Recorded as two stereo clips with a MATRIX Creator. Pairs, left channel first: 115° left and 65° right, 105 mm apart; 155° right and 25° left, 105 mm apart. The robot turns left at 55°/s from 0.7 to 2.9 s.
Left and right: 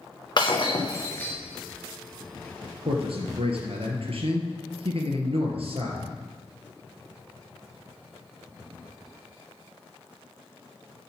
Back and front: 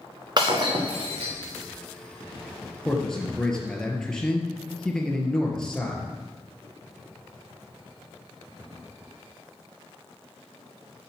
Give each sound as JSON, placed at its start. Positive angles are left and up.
{"t": 0.4, "sound": "breaking glass", "azimuth_deg": 70, "distance_m": 3.0}
{"t": 2.9, "sound": "a man speaking", "azimuth_deg": -70, "distance_m": 3.0}